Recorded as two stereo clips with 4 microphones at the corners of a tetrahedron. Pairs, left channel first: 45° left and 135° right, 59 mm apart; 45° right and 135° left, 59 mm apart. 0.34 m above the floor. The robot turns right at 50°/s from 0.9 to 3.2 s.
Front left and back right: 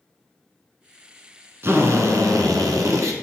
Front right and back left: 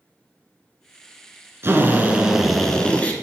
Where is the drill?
Straight behind, 1.4 m; by 3.1 s 105° right, 1.4 m.